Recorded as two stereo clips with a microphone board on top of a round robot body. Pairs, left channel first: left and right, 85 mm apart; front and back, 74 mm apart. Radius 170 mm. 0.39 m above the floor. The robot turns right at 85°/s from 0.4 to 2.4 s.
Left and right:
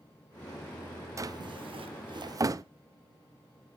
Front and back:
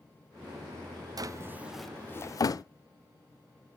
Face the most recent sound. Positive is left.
turn(degrees=-40)